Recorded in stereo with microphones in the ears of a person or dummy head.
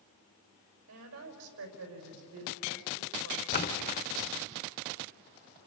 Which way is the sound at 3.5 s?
45° left (ahead or behind).